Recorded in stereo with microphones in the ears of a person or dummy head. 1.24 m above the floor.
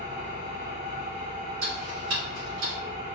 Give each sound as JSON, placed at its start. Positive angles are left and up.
{"t": 0.0, "sound": "an engine running", "side_deg": -50, "distance_m": 1.6}
{"t": 1.6, "sound": "ticking", "side_deg": -70, "distance_m": 1.9}